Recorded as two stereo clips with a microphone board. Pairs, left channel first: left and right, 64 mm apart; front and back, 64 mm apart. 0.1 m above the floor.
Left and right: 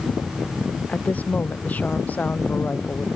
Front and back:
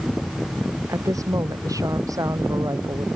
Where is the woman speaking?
155° left.